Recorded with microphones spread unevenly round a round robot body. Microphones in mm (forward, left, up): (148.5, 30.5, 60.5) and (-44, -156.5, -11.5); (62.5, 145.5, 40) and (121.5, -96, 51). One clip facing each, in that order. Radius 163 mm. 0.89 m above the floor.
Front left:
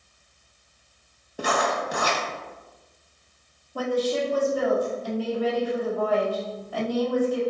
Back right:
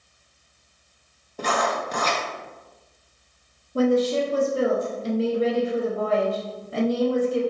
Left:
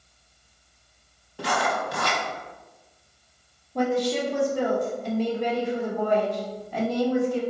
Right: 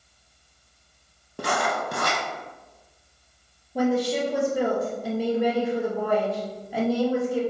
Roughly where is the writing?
Ahead right.